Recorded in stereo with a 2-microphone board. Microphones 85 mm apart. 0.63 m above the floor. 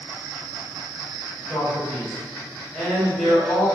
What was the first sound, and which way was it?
A man speaking, 10° left (ahead or behind).